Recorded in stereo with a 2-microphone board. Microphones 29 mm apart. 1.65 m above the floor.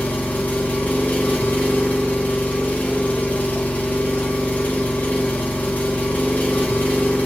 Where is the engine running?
60° left (ahead or behind), 1.5 m.